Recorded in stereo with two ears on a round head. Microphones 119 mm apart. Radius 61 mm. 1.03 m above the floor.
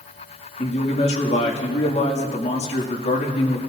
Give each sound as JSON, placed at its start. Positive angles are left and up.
{"t": 0.6, "sound": "a man speaking", "side_deg": 55, "distance_m": 2.0}